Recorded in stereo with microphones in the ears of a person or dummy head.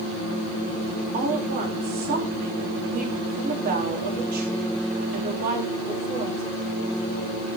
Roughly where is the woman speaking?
Right.